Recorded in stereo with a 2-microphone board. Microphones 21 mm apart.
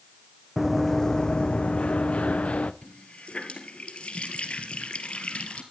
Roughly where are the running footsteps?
Centre.